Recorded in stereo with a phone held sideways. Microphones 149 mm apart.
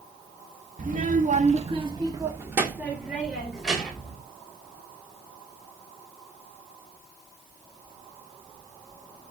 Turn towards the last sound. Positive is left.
turn(degrees=0)  # may be behind; listen again after turning